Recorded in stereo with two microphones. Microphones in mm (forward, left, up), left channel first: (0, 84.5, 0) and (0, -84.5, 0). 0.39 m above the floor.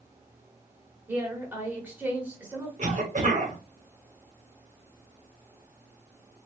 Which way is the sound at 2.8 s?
50° right (ahead or behind).